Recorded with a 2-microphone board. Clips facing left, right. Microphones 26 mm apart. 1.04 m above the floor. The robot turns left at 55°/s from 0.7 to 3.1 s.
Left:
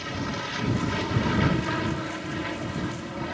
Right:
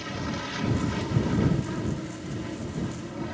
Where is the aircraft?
165° left; by 3.3 s 35° left.